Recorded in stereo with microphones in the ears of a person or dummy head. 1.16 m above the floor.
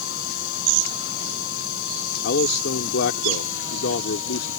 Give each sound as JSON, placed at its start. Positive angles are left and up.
{"t": 0.0, "sound": "a machine running", "side_deg": 75}
{"t": 2.2, "sound": "a man speaking", "side_deg": 55}